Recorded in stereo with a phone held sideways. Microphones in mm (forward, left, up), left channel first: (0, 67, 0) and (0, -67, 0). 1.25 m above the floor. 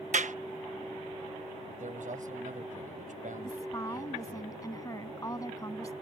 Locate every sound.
0.1 s a clap: 70° right (ahead or behind)
1.7 s a man speaking: 75° right (ahead or behind)
3.4 s a woman speaking: 25° left (ahead or behind)